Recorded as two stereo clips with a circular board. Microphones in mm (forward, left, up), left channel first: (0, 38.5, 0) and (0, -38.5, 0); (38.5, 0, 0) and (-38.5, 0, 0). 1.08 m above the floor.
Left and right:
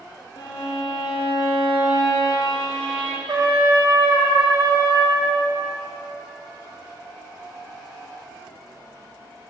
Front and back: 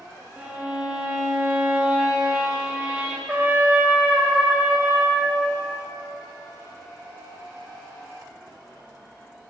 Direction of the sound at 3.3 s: 110° right.